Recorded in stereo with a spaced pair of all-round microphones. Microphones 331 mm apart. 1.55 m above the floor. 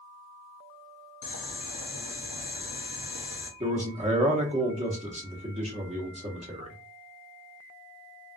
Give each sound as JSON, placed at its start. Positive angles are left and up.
{"t": 1.2, "sound": "boiling", "side_deg": 75, "distance_m": 0.8}
{"t": 3.6, "sound": "a man speaking", "side_deg": -20, "distance_m": 1.0}